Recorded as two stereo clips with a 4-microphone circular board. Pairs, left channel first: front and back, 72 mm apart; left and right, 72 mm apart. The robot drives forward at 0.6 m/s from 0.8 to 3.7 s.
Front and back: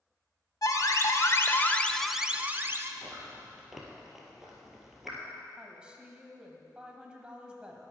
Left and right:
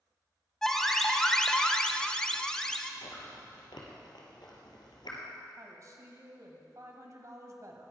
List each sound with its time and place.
0.6 s an alarm: 10° left, 0.9 m; by 2.9 s 165° left, 0.7 m
3.0 s chewing: 85° left, 2 m; by 5.2 s 95° left, 2 m
5.6 s a woman speaking: 110° right, 1.5 m